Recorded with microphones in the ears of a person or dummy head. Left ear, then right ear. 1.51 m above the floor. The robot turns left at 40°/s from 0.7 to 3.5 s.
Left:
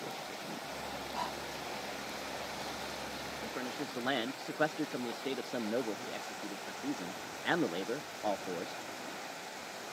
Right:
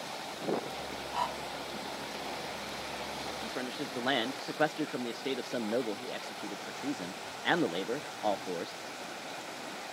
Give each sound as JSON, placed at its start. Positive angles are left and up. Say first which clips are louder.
{"t": 1.1, "sound": "breathing", "louder": "right 6 dB", "side_deg": -25}
{"t": 3.4, "sound": "a man speaking", "louder": "right 2 dB", "side_deg": -5}